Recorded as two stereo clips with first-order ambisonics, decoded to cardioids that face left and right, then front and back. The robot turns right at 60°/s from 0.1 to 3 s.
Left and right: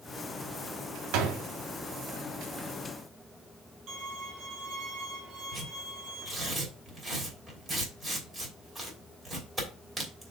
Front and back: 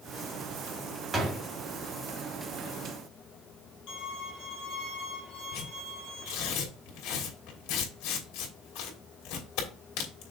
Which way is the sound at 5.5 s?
10° right.